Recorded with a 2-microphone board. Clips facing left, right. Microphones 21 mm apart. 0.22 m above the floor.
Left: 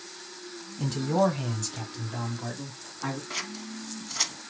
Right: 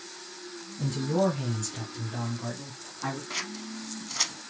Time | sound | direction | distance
0.8 | a man speaking | 35° left (ahead or behind) | 1.6 m
3.3 | scissors | 5° left (ahead or behind) | 0.6 m